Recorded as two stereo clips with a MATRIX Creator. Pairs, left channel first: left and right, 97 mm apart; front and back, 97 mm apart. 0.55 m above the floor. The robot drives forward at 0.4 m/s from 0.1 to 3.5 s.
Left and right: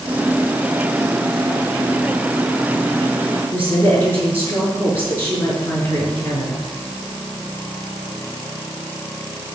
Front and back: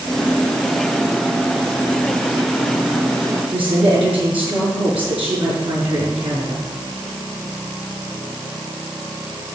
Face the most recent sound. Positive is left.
turn(degrees=160)